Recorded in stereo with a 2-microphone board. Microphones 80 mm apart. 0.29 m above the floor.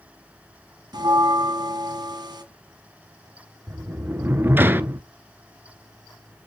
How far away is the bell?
About 1.1 m.